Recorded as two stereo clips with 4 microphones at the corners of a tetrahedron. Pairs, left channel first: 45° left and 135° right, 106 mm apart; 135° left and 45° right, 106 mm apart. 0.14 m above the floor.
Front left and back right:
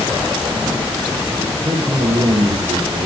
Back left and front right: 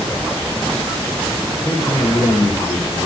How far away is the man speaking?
About 5.5 m.